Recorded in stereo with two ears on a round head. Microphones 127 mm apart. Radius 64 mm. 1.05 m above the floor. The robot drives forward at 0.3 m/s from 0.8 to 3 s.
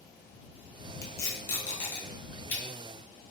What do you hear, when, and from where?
1.0 s tape being pulled: 20° left (ahead or behind), 0.9 m; by 2.6 s 15° left (ahead or behind), 1.4 m